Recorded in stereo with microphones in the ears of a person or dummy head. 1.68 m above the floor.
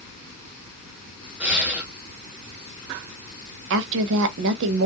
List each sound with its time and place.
1.4 s breathing: 10° right (ahead or behind), 0.8 m
3.7 s a woman speaking: 60° right (ahead or behind), 0.6 m